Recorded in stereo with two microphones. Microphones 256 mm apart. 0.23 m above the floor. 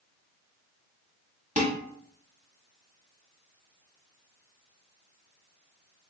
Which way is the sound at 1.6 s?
30° right (ahead or behind).